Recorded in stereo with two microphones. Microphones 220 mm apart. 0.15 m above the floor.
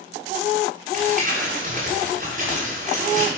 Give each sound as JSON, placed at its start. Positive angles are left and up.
{"t": 0.9, "sound": "crumpling", "side_deg": -40, "distance_m": 9.0}